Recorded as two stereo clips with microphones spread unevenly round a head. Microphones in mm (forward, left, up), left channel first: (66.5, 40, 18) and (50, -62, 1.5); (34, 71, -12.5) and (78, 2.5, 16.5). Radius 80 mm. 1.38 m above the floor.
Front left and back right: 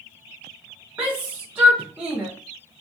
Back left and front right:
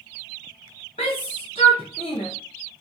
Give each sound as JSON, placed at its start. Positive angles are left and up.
{"t": 1.0, "sound": "a shout", "azimuth_deg": 175, "distance_m": 0.5}